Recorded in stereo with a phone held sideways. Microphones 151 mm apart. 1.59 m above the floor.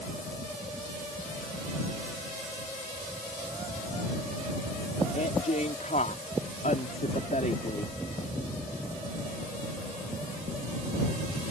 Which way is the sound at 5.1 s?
55° left (ahead or behind).